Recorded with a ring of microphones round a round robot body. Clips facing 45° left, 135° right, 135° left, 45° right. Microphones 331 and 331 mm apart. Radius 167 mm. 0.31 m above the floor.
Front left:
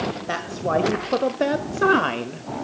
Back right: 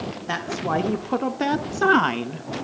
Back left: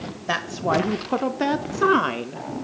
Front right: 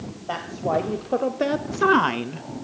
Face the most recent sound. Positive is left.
turn(degrees=-75)